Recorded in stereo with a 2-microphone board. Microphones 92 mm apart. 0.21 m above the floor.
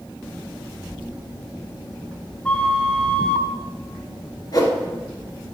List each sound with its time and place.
2.5 s a flute: 10° left (ahead or behind), 0.7 m
4.5 s a whoosh: 45° left (ahead or behind), 1.5 m